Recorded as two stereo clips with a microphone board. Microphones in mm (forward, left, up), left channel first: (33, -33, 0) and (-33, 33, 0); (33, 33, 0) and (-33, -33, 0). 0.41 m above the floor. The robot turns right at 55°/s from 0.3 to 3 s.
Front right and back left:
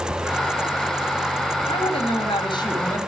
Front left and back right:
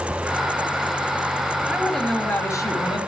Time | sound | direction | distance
1.7 | a woman speaking | 55° right | 6.5 m